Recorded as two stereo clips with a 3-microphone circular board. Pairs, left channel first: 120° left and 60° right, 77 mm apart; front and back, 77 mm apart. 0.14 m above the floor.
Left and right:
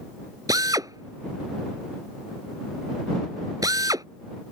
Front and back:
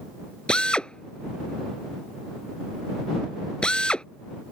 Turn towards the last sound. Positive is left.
turn(degrees=-75)